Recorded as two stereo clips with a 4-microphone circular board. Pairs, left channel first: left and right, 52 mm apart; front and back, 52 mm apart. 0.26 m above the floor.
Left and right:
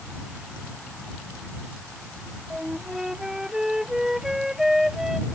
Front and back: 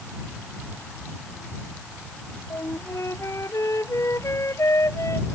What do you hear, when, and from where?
2.5 s a flute: 10° right